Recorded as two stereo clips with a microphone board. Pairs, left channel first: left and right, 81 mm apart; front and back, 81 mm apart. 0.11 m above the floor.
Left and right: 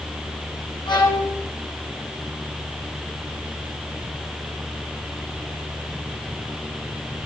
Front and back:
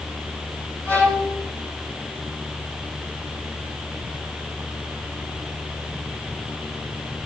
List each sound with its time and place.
0.8 s a violin: 65° left, 2.5 m